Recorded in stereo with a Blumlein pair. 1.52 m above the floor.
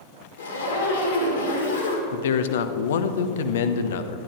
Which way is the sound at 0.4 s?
65° left.